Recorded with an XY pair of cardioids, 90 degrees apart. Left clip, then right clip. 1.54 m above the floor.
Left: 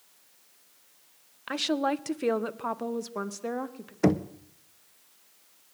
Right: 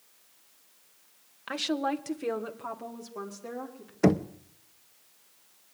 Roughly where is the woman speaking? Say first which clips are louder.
Left 2 dB; ahead.